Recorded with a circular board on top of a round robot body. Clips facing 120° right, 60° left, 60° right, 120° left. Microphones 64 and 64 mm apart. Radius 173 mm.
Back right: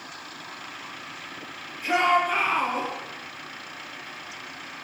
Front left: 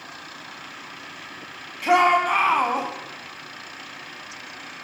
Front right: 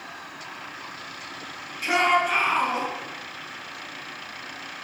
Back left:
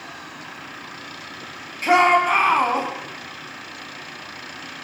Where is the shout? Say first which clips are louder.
Front left 4 dB, back left 6 dB; 75° left, 6 m; by 2.9 s 85° left, 6 m.